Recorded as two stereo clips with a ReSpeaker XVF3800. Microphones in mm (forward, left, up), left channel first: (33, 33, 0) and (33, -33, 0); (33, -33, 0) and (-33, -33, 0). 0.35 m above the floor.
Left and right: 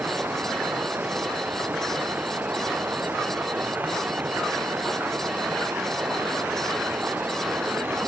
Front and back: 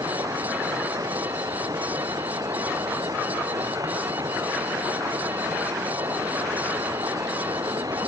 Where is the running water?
150° right.